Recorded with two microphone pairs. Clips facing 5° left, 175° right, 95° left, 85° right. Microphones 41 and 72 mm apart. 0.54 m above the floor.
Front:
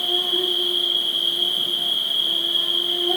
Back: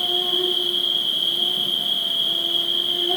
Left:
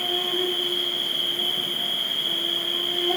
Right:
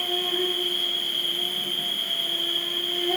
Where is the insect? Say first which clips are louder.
Even, left 1 dB; 20° right, 2 m.